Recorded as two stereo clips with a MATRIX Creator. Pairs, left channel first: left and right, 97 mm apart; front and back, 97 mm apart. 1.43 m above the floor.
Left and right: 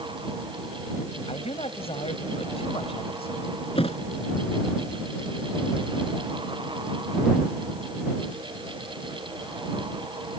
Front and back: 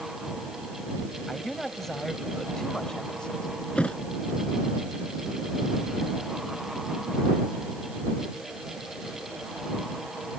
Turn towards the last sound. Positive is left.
turn(degrees=80)